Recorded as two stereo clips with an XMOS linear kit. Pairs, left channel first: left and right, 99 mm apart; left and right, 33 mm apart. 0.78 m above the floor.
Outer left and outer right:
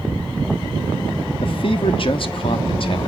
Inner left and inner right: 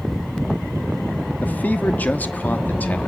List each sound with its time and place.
1.4 s a man speaking: 60° left (ahead or behind), 1.1 m